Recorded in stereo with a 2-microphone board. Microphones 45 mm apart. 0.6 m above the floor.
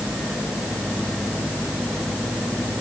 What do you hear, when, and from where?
Only background noise.